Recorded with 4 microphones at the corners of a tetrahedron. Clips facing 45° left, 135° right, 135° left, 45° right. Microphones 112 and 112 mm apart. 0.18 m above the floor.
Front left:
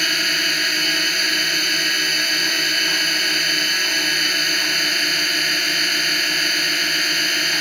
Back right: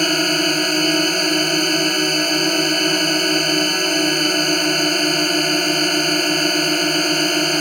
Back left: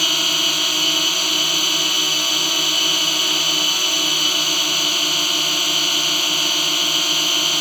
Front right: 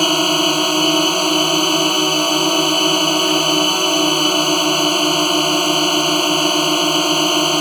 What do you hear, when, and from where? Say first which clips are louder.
0.0 s a drone: back right 8 dB, front right 11 dB; 90° right